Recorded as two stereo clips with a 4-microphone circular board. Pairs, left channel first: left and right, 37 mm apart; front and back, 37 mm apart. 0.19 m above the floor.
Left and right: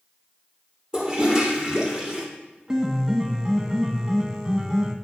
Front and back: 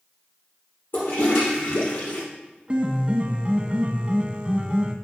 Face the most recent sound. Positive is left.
turn(degrees=-150)